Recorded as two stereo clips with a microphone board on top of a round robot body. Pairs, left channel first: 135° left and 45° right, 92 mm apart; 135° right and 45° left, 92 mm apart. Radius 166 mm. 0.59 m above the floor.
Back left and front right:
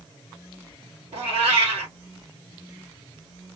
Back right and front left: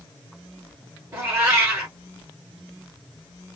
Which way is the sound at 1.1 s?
20° right.